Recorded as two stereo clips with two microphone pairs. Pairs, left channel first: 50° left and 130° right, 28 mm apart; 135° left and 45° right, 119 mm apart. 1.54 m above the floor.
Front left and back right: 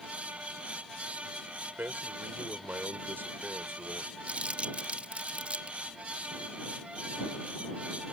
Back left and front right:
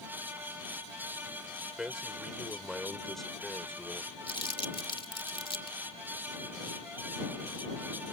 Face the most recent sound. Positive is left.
turn(degrees=180)